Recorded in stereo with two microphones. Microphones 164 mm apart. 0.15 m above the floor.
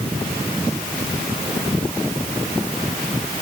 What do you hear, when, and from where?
Only background noise.